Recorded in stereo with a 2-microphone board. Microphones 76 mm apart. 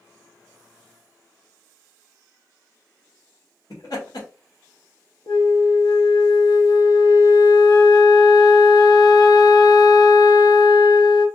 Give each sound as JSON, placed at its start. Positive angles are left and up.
{"t": 3.7, "sound": "laughter", "side_deg": 60, "distance_m": 2.0}
{"t": 5.3, "sound": "a flute", "side_deg": 85, "distance_m": 1.0}